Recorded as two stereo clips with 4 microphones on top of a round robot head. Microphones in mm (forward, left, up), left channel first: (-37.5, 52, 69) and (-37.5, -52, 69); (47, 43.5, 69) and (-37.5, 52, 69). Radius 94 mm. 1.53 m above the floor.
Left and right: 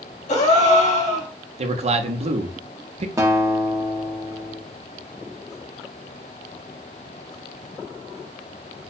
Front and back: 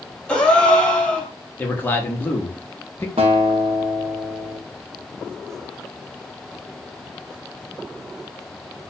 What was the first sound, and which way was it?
A gasp, 70° left.